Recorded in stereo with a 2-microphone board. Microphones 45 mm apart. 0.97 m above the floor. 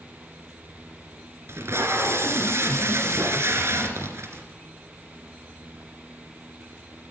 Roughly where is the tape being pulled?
Right.